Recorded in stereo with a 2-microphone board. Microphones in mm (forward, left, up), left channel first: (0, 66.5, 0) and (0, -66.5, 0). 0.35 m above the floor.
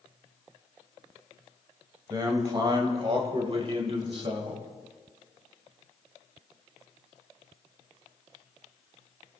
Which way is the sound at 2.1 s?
30° right (ahead or behind).